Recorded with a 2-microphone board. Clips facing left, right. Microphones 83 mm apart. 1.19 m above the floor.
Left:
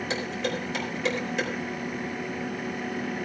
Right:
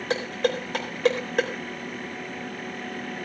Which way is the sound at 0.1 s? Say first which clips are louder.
Right 7 dB; 60° right (ahead or behind).